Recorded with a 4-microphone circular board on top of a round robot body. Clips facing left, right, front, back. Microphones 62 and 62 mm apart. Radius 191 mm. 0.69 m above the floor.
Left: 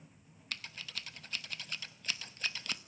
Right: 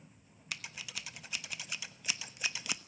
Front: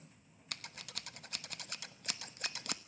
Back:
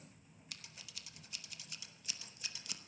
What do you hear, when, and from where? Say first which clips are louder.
0.5 s scissors: right 1 dB, front 7 dB; 10° right, 1.4 m